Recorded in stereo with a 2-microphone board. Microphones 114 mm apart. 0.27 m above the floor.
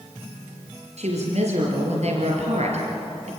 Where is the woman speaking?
75° right (ahead or behind), 5.5 m.